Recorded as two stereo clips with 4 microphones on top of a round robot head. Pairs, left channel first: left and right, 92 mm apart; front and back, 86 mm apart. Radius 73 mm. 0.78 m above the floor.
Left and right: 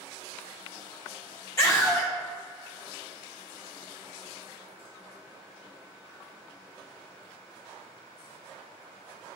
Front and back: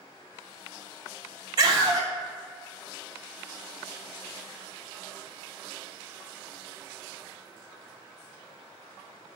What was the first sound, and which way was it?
A scream, 145° left.